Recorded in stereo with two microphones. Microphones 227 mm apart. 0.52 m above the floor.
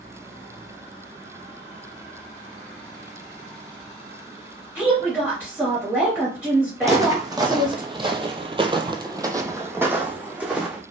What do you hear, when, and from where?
4.8 s a woman speaking: 5° right (ahead or behind), 1.5 m
6.8 s footsteps: 15° right (ahead or behind), 1.2 m; by 10.8 s 5° right (ahead or behind), 1.4 m